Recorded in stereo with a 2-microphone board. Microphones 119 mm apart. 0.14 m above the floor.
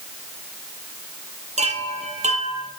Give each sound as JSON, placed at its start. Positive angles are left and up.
{"t": 1.6, "sound": "a chime", "side_deg": -70, "distance_m": 1.9}